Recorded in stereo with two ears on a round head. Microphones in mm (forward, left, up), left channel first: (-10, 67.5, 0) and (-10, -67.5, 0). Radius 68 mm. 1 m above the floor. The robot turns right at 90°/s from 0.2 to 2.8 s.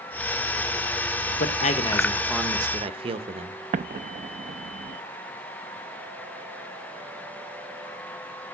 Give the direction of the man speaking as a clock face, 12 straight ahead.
9 o'clock.